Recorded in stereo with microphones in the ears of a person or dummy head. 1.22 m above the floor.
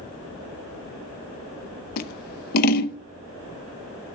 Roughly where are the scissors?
Left.